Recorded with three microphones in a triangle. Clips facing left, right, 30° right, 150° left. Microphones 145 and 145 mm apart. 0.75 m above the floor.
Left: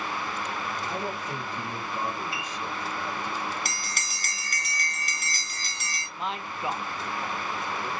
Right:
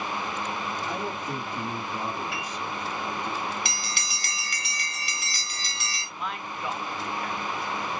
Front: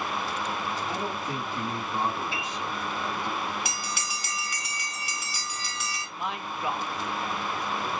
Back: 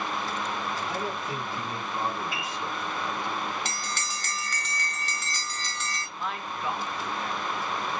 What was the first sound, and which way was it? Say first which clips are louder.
A man speaking: right 1 dB, even; 80° right.